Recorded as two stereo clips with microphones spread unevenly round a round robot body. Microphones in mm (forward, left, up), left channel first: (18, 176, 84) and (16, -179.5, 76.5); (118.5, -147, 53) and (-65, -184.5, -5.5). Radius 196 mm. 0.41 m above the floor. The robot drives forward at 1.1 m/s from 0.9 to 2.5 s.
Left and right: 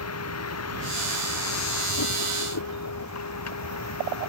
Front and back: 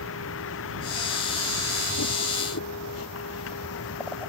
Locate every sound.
0.0 s a vehicle: 40° left